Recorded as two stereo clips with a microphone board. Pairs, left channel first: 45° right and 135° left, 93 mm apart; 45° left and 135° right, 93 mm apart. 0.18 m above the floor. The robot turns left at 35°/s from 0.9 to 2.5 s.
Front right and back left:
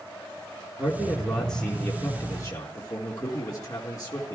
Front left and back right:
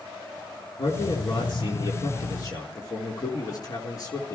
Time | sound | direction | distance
0.8 | a man speaking | 55° left | 4 m